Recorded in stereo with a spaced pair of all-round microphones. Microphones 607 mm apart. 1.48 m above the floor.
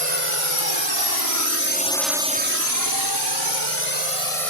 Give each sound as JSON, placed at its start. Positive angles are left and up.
{"t": 0.0, "sound": "a drone", "side_deg": 60}